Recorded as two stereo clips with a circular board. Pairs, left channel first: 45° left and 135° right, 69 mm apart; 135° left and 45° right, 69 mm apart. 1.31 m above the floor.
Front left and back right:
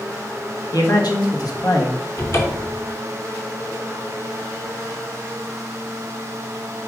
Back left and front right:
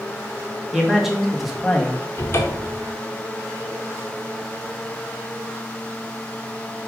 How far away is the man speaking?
About 2 m.